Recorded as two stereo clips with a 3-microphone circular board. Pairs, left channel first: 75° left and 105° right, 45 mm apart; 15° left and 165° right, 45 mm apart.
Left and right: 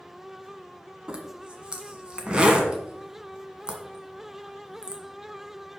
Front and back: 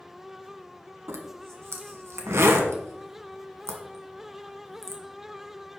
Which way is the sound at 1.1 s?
170° right.